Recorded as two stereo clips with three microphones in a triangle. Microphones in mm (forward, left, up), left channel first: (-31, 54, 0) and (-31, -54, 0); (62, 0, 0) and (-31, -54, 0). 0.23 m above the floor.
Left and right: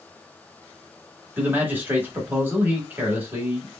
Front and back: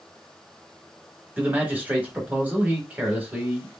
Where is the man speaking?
110° right, 1.2 m.